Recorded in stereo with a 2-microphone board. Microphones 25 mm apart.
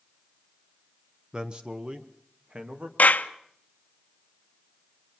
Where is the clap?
75° left (ahead or behind), 1.0 m.